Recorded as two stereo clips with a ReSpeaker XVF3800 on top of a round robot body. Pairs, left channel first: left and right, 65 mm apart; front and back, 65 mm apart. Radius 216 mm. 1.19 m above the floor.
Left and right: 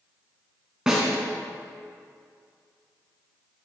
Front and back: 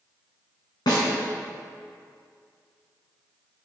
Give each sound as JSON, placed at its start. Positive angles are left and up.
{"t": 0.9, "sound": "a snare drum", "azimuth_deg": -10, "distance_m": 2.0}